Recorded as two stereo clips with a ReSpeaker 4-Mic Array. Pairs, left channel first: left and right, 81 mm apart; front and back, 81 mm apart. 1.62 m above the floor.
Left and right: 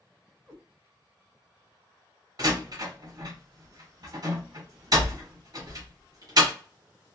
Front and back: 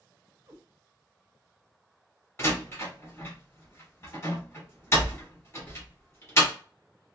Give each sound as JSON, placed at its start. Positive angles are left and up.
{"t": 0.5, "sound": "a cat meowing", "azimuth_deg": 180, "distance_m": 1.5}
{"t": 2.4, "sound": "a door slam", "azimuth_deg": -55, "distance_m": 1.5}